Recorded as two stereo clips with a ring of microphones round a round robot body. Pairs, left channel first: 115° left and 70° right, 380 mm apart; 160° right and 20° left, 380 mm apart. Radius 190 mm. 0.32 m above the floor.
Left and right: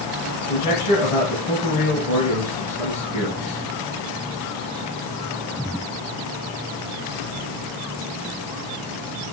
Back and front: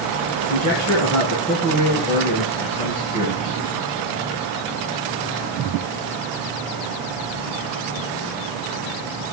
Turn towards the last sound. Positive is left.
turn(degrees=65)